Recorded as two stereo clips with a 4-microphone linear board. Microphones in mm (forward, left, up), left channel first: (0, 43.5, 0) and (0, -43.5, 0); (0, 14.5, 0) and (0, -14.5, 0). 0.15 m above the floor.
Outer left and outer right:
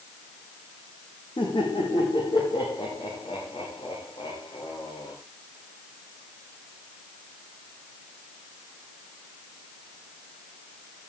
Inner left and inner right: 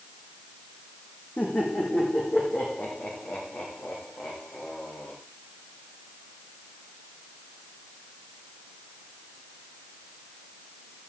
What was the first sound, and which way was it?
Laughter, 80° left.